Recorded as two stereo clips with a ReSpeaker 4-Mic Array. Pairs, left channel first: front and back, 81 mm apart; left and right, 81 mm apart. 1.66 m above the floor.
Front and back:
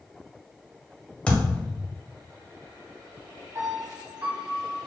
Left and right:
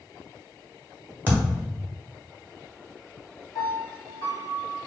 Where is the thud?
55° right, 1.5 m.